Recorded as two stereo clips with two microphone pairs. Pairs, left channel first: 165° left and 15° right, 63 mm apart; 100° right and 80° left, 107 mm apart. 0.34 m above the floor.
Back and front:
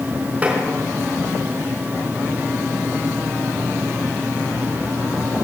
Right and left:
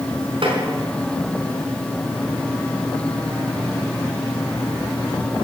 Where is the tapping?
50° left, 4.5 m.